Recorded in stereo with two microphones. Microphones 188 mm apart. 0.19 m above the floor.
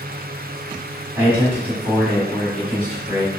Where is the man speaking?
20° right (ahead or behind), 1.6 m; by 3.3 s 20° left (ahead or behind), 1.6 m.